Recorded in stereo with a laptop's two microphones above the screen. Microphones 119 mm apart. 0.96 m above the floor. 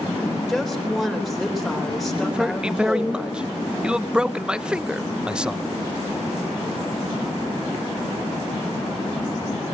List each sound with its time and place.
0.5 s a woman speaking: centre (ahead or behind), 3.5 m
2.2 s a man speaking: 10° right (ahead or behind), 0.7 m